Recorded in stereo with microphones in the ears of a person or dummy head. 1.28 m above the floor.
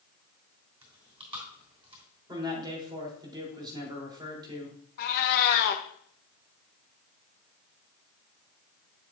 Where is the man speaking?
25° right (ahead or behind), 3 m.